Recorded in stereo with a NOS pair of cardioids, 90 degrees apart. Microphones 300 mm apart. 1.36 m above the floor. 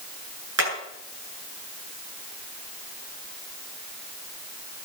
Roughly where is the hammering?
Ahead right.